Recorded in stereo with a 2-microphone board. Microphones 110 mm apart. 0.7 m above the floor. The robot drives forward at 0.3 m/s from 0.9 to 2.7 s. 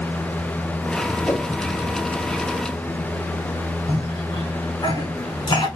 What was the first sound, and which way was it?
A whoosh, 25° left (ahead or behind).